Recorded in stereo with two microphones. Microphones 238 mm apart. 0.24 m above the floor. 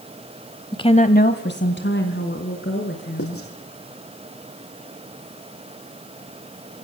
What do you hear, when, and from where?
0.7 s a woman speaking: 15° left (ahead or behind), 1.0 m; by 3.4 s 55° left (ahead or behind), 4 m
3.2 s writing: 70° left (ahead or behind), 7 m